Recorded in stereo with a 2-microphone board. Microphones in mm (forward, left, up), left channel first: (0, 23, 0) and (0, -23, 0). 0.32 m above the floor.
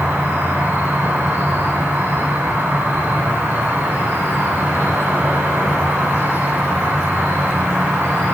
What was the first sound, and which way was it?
An insect, 65° right (ahead or behind).